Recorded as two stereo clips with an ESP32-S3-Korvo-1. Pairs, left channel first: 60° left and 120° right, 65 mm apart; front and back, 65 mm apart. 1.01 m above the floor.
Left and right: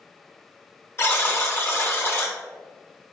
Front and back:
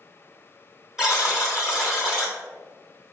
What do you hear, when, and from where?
1.0 s a buzzer: 100° left, 1.1 m